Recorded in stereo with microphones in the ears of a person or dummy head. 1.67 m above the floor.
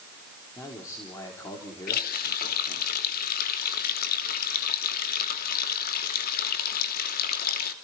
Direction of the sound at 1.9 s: 55° left (ahead or behind).